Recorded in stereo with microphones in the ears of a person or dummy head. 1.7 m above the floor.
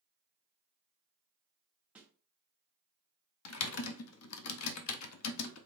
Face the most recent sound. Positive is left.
turn(degrees=80)